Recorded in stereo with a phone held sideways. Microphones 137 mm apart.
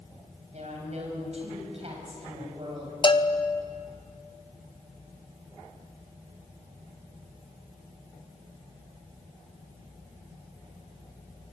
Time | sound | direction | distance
0.5 | a woman speaking | 55° right (ahead or behind) | 7.5 m
3.0 | a bell | 35° left (ahead or behind) | 0.9 m